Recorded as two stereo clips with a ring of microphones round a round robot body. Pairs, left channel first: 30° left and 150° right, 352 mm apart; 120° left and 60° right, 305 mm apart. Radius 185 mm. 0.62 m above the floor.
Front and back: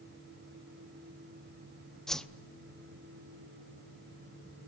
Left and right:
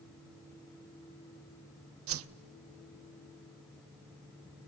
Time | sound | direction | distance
2.1 | a whoosh | 60° right | 0.8 m